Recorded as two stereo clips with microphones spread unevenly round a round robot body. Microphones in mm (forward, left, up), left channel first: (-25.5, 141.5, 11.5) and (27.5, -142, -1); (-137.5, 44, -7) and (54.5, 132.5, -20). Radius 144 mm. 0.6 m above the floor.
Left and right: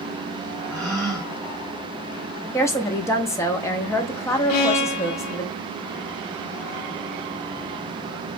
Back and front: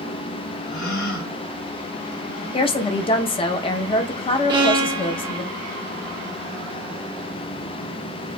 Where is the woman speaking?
175° left, 0.6 m.